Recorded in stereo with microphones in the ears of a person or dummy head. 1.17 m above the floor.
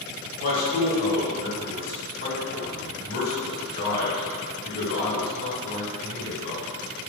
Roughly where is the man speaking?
Left.